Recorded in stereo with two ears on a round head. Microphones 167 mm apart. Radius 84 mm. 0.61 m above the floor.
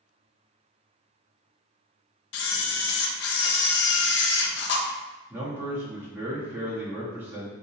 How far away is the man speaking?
About 0.9 m.